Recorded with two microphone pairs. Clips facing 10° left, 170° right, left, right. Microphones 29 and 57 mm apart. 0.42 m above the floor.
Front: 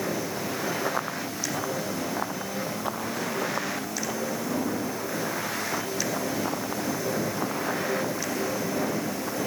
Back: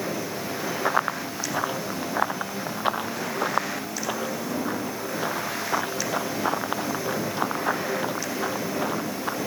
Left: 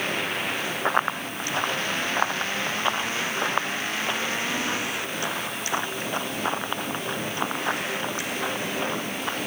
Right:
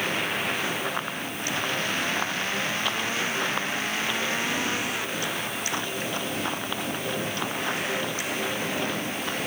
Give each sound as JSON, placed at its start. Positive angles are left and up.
{"t": 0.8, "sound": "running footsteps", "azimuth_deg": 145}